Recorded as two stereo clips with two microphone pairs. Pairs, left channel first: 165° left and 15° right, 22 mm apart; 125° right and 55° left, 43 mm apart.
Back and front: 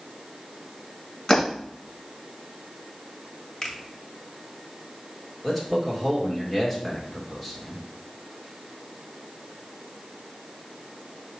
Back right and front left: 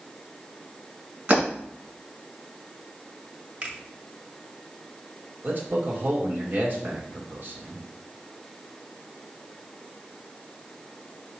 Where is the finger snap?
105° left, 1.6 m.